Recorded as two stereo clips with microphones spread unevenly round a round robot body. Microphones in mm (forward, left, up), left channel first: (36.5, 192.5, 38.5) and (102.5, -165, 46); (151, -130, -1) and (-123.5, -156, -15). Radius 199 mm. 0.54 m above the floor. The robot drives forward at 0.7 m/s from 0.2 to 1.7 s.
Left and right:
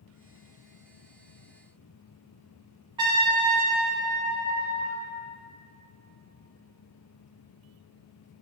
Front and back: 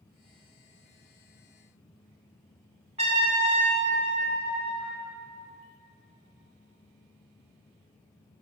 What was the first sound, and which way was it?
A trumpet, 145° right.